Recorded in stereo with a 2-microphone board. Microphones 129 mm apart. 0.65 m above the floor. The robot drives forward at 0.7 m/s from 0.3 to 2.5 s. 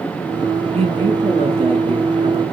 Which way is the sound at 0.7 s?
55° right (ahead or behind).